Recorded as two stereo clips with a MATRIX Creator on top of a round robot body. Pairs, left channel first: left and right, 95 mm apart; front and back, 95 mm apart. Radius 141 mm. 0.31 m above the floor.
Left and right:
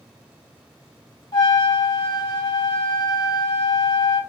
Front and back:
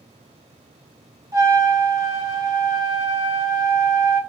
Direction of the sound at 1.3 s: 120° left.